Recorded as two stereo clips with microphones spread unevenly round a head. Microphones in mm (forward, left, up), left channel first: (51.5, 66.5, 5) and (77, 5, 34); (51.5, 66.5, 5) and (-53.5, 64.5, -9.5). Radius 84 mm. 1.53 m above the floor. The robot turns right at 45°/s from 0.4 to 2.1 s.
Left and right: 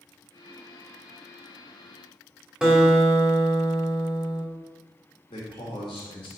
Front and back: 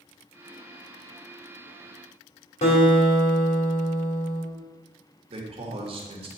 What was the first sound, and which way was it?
A guitar, 10° left.